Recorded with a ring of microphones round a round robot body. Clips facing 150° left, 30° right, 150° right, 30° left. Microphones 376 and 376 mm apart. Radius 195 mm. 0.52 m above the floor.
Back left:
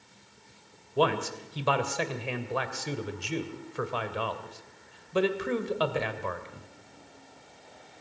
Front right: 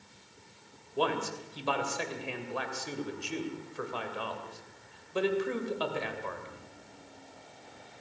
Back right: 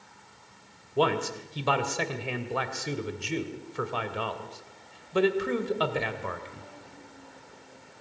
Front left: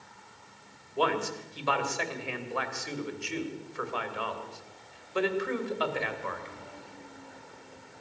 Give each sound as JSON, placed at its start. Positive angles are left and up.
{"t": 1.0, "sound": "a man speaking", "azimuth_deg": 165, "distance_m": 2.5}